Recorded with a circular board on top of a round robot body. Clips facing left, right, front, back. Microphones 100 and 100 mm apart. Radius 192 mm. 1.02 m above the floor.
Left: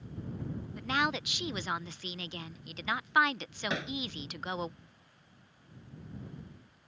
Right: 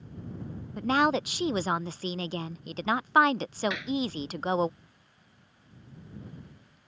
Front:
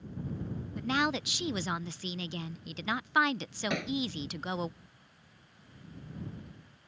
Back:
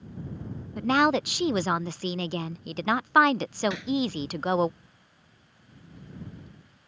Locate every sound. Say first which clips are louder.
0.8 s a woman speaking: right 8 dB, back 9 dB; 140° right
3.7 s hammering: right 3 dB, back 3 dB; 35° left